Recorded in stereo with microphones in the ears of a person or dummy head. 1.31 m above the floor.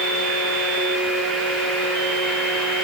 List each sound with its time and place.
Only background noise.